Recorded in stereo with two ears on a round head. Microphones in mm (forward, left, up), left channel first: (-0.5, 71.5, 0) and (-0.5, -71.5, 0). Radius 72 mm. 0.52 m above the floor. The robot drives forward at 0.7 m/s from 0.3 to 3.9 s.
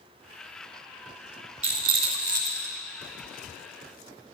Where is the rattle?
40° right (ahead or behind), 0.9 m; by 2.8 s 20° right (ahead or behind), 1.6 m.